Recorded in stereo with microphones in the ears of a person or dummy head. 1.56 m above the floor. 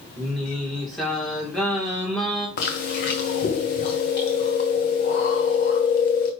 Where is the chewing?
40° left (ahead or behind), 1.5 m.